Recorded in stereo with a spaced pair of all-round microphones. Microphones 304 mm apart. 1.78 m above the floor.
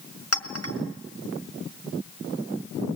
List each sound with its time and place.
0.3 s a clink: 45° left (ahead or behind), 1.6 m